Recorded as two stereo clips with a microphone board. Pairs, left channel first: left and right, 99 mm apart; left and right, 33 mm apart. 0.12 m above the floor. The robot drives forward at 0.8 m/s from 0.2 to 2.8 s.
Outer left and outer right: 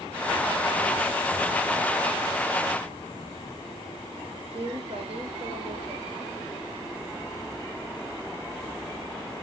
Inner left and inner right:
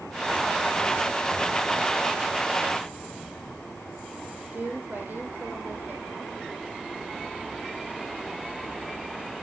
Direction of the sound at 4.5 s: 70° right (ahead or behind).